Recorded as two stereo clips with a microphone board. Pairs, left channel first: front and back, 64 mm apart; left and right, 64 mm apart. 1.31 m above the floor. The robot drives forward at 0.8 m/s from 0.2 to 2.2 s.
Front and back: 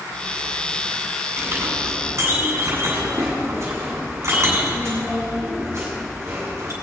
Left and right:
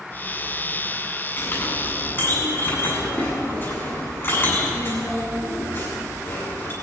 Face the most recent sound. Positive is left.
turn(degrees=140)